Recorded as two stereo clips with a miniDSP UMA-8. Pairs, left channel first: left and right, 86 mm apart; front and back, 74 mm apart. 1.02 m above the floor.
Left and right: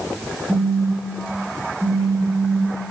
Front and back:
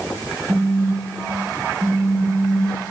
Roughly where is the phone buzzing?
Behind right.